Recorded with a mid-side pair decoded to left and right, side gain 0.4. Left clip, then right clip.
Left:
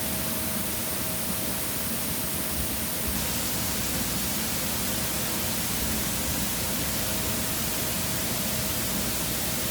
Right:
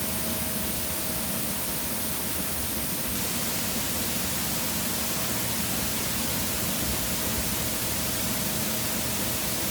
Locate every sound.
Only background noise.